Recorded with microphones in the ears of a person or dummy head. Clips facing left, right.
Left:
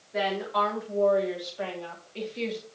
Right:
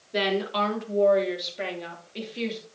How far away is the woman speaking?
About 3 m.